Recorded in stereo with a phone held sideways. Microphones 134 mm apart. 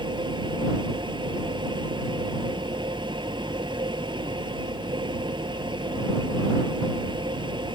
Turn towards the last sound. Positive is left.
turn(degrees=-30)  # may be behind; listen again after turning